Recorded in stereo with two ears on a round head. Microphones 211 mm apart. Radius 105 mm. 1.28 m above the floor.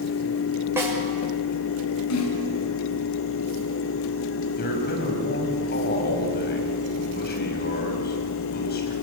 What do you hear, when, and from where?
0.8 s a snare drum: 10° right (ahead or behind), 6 m
2.1 s a snare drum: 75° left (ahead or behind), 7 m
4.6 s a man speaking: 45° left (ahead or behind), 6.5 m